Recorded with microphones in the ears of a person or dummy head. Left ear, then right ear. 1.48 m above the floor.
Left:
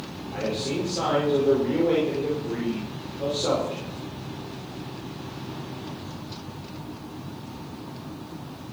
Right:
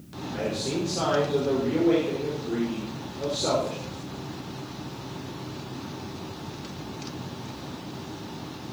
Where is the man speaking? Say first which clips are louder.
Left 1 dB; 5° left (ahead or behind), 5.5 m.